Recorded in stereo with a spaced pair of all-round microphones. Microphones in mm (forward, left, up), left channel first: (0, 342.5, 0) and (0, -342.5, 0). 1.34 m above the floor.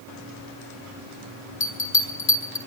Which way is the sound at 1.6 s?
60° left (ahead or behind).